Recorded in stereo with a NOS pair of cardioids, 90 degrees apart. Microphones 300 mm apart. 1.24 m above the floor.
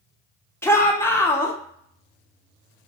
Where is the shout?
10° left, 0.9 m.